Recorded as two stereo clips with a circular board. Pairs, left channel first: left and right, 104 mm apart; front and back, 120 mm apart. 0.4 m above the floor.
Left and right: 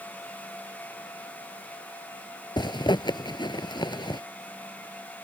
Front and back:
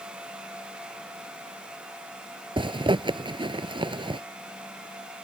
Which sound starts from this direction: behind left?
A zipper, at 2.6 s.